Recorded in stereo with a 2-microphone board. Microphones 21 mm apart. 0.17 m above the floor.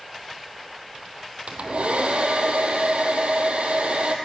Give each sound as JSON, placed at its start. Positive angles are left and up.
{"t": 1.5, "sound": "a hair dryer", "side_deg": -70, "distance_m": 1.9}